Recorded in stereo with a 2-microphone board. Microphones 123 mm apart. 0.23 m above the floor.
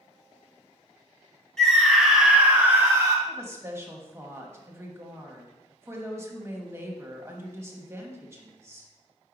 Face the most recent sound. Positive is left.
turn(degrees=-20)  # may be behind; listen again after turning